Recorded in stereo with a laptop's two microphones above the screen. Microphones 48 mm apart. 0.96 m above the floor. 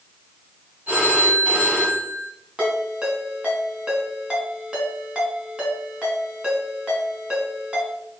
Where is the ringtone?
20° right (ahead or behind), 4 m.